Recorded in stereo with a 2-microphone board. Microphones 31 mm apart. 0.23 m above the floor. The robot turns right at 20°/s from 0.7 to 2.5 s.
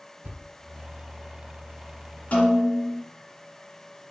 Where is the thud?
60° right (ahead or behind), 1.1 m.